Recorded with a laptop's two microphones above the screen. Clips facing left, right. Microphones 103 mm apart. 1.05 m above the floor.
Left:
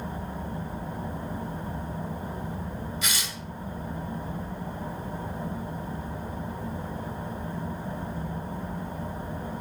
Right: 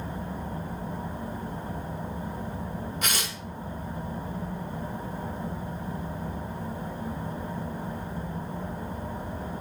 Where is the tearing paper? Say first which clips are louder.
Right 2 dB; 55° right (ahead or behind), 1.5 m.